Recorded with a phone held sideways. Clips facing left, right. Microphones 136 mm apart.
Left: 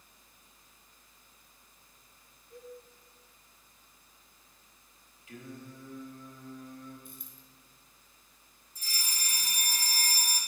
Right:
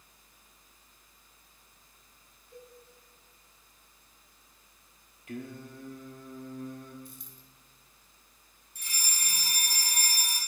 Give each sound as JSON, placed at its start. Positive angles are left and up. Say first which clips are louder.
{"t": 2.5, "sound": "a cowbell", "louder": "left 4 dB", "side_deg": 50, "distance_m": 5.0}
{"t": 5.3, "sound": "singing", "louder": "right 5 dB", "side_deg": -60, "distance_m": 1.5}
{"t": 7.0, "sound": "a dropped coin", "louder": "right 1 dB", "side_deg": 60, "distance_m": 2.0}
{"t": 8.8, "sound": "a fire alarm", "louder": "right 1 dB", "side_deg": -75, "distance_m": 3.0}